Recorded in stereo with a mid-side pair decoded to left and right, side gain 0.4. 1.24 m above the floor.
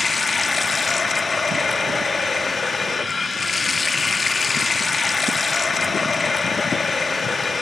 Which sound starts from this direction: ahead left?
Running water, at 0.0 s.